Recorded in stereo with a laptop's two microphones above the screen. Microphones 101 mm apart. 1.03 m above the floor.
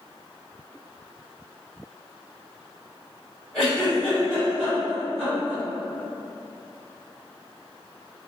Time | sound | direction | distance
3.5 | a giggle | 5° left (ahead or behind) | 1.4 m